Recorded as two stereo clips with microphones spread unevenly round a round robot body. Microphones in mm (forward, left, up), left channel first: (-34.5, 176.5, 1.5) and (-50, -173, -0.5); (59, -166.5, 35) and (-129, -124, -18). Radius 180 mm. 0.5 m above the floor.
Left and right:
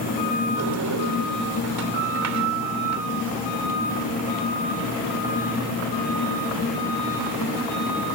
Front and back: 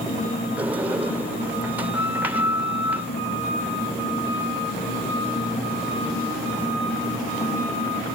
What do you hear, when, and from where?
0.6 s a sliding door: 125° right